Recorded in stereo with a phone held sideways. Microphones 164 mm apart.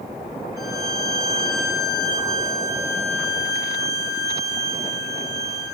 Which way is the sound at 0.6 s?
20° right (ahead or behind).